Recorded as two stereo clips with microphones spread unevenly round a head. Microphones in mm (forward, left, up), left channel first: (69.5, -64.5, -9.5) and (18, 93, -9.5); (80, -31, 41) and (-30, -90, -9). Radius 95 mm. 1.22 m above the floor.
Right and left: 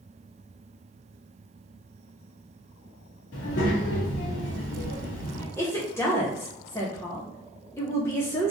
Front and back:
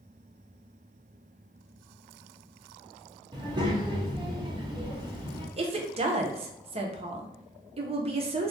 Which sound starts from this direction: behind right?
A woman speaking, at 5.6 s.